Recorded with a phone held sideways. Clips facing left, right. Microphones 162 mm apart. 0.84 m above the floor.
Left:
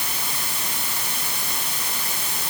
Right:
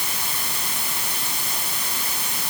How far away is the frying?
No frying in this recording.